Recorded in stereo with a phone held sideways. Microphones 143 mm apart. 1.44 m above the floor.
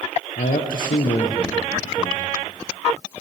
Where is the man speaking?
80° left, 0.9 m.